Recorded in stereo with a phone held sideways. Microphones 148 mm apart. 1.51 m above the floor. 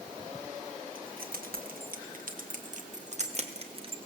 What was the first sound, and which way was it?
Keys jangling, 80° right.